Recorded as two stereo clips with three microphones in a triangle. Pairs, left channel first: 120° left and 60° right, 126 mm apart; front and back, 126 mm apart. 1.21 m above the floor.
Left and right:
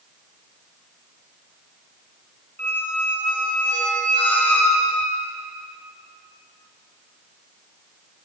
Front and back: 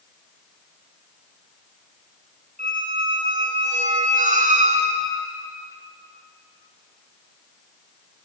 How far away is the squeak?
About 1.3 m.